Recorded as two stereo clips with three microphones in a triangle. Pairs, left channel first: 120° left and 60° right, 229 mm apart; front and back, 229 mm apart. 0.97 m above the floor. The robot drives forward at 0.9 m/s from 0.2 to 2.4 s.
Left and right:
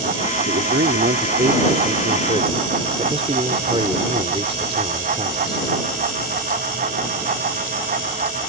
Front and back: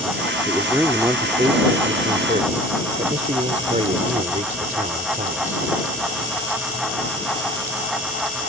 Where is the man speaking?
90° right; by 5.7 s 125° right.